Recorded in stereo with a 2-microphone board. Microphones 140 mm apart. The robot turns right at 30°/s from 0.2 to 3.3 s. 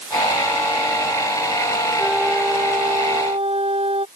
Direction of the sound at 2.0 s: 175° right.